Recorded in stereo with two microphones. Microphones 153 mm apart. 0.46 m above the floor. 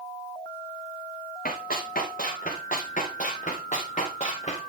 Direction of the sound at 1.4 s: 65° left (ahead or behind).